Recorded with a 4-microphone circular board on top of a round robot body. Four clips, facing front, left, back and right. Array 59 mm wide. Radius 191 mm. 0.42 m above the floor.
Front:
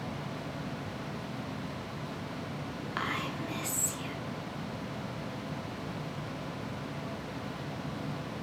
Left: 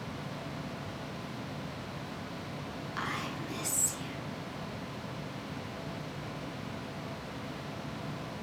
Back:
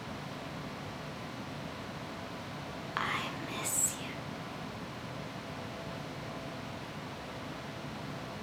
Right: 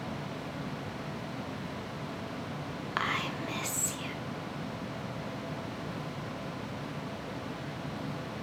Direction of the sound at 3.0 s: 100° right.